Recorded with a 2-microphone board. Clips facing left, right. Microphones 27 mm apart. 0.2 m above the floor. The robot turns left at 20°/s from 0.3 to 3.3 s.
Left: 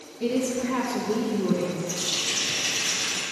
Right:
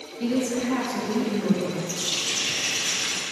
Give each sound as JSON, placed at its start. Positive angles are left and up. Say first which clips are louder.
{"t": 0.2, "sound": "a woman speaking", "louder": "right 1 dB", "side_deg": -30, "distance_m": 4.0}
{"t": 1.9, "sound": "a running tap", "louder": "even", "side_deg": -40, "distance_m": 4.0}